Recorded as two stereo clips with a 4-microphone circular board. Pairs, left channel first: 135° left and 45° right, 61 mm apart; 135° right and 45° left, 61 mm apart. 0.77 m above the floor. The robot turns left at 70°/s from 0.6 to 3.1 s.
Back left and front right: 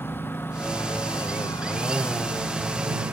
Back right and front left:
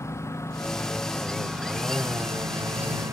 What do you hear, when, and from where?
0.0 s a lawn mower: 170° right; by 3.1 s 15° left